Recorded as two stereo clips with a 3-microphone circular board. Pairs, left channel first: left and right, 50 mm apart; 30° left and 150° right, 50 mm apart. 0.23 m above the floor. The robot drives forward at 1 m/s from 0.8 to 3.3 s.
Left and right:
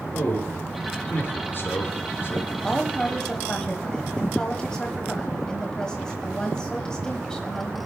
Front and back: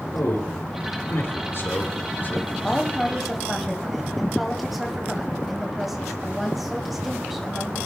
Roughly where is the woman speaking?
Ahead left.